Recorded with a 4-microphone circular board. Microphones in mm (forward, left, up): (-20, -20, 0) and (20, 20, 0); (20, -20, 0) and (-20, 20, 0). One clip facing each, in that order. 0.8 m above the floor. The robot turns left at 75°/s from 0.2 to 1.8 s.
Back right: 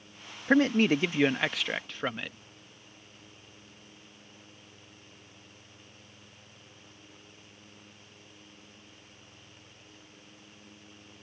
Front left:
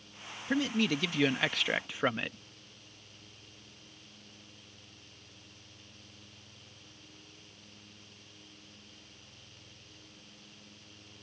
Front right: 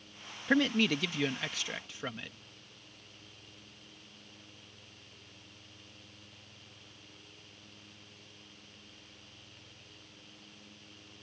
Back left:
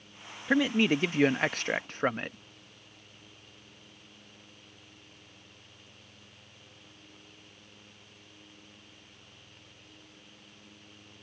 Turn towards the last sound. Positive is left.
turn(degrees=120)